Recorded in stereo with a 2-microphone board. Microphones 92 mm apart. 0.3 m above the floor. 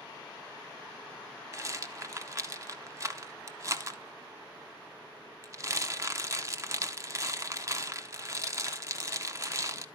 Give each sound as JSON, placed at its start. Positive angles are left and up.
{"t": 1.5, "sound": "a rattle", "side_deg": -35, "distance_m": 0.6}